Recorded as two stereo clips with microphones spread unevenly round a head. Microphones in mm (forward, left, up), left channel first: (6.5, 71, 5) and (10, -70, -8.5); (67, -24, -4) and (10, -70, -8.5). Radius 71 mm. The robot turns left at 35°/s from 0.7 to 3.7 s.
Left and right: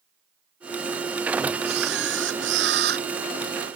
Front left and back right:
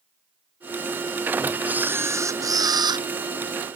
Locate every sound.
1.6 s a camera shutter: 70° right; by 3.1 s 120° right